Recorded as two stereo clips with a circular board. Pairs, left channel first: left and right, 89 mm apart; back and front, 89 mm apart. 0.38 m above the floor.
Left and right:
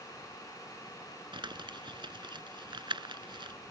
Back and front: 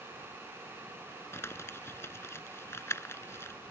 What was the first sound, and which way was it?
Crumpling, 120° right.